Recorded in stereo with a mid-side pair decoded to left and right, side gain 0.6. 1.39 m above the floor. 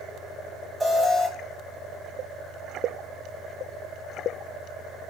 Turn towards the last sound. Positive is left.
turn(degrees=-5)